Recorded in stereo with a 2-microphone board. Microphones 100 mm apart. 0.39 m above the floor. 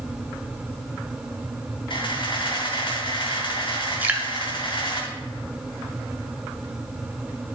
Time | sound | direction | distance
1.9 | a camera shutter | 55° left (ahead or behind) | 3 m
4.0 | dripping | 20° right (ahead or behind) | 1.4 m